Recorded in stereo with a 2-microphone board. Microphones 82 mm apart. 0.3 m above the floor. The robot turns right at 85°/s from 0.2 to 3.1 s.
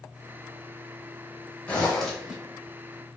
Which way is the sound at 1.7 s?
15° left (ahead or behind).